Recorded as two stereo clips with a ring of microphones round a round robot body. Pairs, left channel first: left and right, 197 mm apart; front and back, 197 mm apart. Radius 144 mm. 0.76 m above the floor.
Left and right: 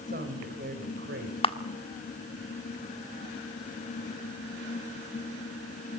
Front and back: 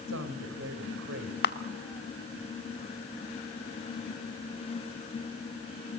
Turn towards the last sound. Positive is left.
turn(degrees=25)